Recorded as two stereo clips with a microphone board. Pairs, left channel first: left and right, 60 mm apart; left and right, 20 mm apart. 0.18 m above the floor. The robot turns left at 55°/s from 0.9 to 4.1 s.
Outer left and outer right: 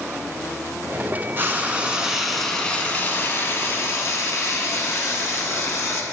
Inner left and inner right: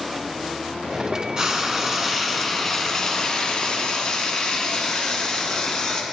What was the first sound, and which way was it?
Frying, 130° right.